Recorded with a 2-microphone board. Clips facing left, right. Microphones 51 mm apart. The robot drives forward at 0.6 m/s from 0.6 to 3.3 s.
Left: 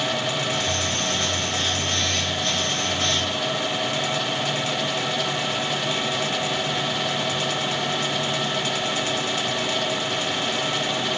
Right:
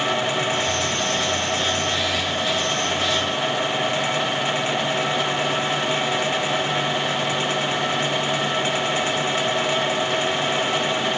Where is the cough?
I don't hear a cough.